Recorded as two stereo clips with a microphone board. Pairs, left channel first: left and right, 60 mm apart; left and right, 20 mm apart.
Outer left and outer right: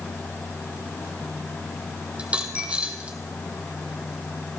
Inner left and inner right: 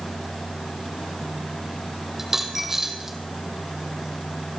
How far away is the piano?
No piano in this recording.